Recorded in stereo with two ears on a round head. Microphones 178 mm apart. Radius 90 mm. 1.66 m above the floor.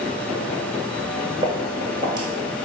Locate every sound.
1.4 s footsteps: 20° right (ahead or behind), 1.8 m